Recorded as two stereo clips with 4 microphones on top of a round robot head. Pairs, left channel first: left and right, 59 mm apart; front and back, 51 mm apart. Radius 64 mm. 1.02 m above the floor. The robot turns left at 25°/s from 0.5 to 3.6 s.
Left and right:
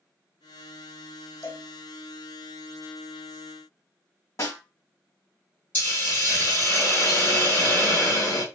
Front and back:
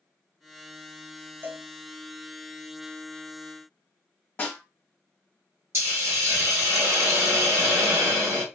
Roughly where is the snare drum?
Ahead left.